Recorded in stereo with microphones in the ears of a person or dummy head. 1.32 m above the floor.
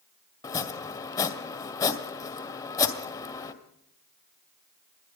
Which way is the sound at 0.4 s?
20° left (ahead or behind).